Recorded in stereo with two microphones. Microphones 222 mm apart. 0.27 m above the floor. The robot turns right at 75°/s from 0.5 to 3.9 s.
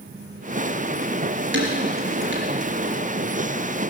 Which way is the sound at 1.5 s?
60° right (ahead or behind).